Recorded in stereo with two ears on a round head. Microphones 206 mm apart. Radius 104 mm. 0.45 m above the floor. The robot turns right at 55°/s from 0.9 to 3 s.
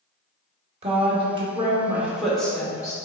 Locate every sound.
0.8 s a woman speaking: 25° right (ahead or behind), 1.0 m; by 3.0 s 15° left (ahead or behind), 1.0 m